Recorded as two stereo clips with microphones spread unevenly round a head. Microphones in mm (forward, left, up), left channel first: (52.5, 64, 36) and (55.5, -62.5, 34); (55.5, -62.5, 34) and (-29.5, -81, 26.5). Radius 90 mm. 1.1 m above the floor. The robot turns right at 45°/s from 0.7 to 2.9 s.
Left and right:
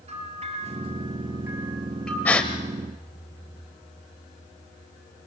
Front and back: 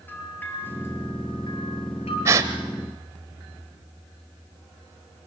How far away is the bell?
About 9.5 m.